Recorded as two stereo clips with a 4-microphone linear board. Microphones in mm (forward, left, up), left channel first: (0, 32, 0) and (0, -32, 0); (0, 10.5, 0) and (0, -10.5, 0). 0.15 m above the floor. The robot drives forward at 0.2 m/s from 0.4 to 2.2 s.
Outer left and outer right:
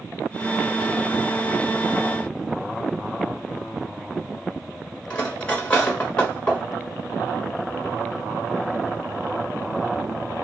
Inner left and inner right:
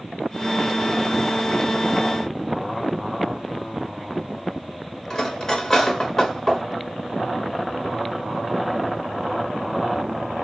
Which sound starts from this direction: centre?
Cutlery clinking, at 5.1 s.